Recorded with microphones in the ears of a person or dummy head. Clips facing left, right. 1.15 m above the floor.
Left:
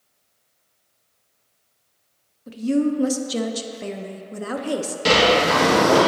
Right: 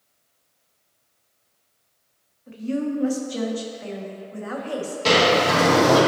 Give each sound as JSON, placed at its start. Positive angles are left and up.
{"t": 2.5, "sound": "a woman speaking", "side_deg": 45, "distance_m": 0.6}
{"t": 5.0, "sound": "a sliding door", "side_deg": 15, "distance_m": 1.6}